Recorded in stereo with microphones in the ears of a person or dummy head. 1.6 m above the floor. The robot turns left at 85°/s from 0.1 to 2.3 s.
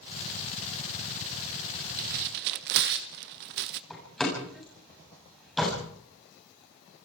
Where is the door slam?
5° left (ahead or behind), 8 m.